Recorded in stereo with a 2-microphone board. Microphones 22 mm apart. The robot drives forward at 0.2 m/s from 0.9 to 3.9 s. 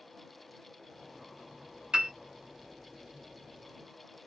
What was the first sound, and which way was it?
A piano, 50° right (ahead or behind).